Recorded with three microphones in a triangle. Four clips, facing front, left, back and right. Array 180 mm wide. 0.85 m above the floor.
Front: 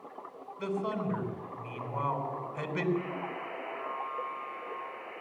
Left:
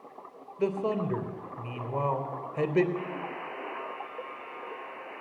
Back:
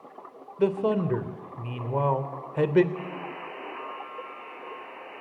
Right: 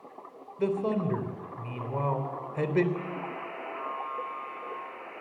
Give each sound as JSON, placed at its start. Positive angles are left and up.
{"t": 0.6, "sound": "a man speaking", "azimuth_deg": 175, "distance_m": 3.0}
{"t": 3.0, "sound": "a buzzer", "azimuth_deg": 135, "distance_m": 9.0}